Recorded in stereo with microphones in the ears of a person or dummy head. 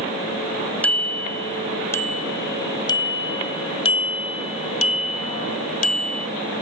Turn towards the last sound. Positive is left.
turn(degrees=55)  # may be behind; listen again after turning